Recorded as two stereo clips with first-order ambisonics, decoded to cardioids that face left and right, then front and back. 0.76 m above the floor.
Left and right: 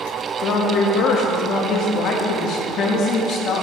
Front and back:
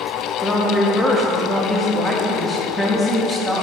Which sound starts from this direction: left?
A woman speaking, at 0.4 s.